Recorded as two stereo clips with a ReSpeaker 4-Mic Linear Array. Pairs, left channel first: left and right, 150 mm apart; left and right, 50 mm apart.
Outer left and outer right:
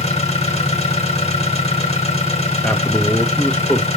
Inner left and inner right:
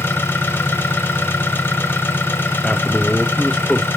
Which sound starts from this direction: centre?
A man speaking, at 2.6 s.